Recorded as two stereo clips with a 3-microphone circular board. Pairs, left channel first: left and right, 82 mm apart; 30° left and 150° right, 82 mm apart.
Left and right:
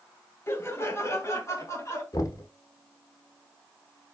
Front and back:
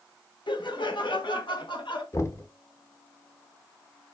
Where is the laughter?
35° left, 2.5 m; by 2.0 s 40° left, 3.5 m.